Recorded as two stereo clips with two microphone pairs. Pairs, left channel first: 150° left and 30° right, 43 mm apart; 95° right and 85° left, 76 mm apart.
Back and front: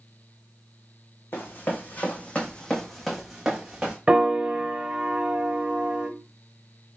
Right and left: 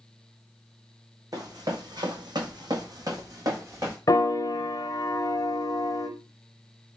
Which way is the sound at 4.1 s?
90° right.